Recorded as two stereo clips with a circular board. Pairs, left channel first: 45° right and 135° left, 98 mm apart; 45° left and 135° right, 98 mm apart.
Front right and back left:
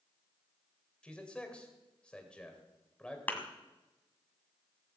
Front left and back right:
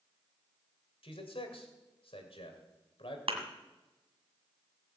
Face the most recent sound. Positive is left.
turn(degrees=-115)